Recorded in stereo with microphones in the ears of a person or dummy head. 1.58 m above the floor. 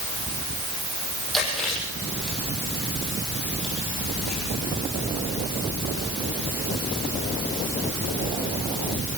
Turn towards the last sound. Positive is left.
turn(degrees=5)  # may be behind; listen again after turning